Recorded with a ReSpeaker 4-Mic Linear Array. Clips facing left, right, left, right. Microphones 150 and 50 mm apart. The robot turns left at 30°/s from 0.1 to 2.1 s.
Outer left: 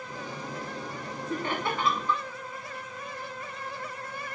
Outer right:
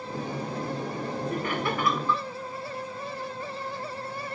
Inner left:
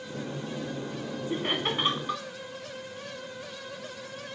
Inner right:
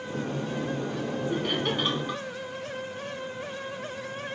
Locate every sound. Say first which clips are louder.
1.3 s laughter: outer left 1 dB, inner left 1 dB; 30° left (ahead or behind), 1.3 m; by 2.2 s 20° left (ahead or behind), 1.3 m